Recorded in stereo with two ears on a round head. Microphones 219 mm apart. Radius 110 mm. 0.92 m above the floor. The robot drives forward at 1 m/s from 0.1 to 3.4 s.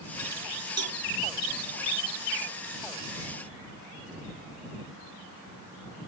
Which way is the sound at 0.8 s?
70° right (ahead or behind).